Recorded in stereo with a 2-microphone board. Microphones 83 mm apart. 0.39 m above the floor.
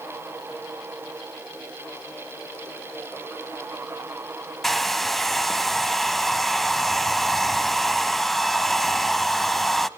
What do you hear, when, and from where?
4.6 s a hair dryer: centre (ahead or behind), 0.5 m